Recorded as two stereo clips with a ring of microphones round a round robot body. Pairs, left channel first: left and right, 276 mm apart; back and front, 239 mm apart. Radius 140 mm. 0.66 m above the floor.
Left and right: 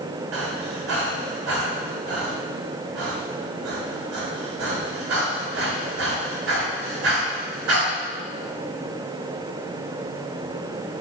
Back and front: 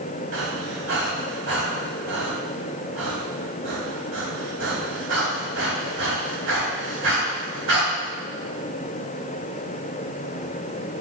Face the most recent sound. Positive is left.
turn(degrees=-50)